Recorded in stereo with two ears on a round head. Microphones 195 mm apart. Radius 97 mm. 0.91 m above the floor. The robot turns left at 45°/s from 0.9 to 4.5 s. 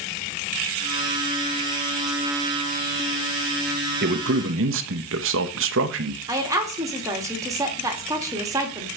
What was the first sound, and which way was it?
A man speaking, 45° right (ahead or behind).